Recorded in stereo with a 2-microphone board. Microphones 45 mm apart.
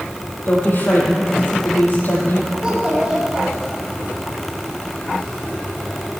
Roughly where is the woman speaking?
Left.